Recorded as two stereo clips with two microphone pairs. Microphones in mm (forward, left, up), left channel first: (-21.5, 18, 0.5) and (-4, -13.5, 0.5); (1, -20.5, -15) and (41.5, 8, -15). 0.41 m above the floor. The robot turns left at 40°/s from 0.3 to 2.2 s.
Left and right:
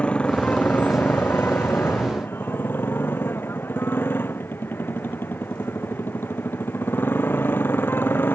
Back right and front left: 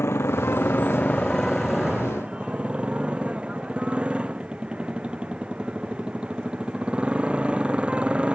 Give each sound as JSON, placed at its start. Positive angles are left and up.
{"t": 0.0, "sound": "a motorcycle", "azimuth_deg": 180}